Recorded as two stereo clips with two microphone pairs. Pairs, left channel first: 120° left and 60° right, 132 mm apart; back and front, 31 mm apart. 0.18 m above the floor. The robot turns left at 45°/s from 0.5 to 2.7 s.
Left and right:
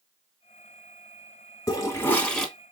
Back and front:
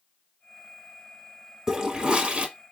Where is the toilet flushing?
65° left, 0.8 m; by 2.5 s 30° left, 0.8 m.